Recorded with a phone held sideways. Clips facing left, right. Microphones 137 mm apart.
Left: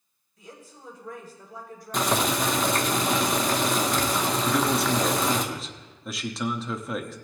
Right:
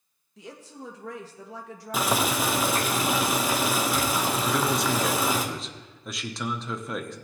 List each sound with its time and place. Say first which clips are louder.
0.4 s a woman speaking: right 5 dB; 85° right, 1.3 m
1.9 s boiling: left 1 dB; 5° right (ahead or behind), 0.9 m
4.5 s a man speaking: left 3 dB; centre (ahead or behind), 0.9 m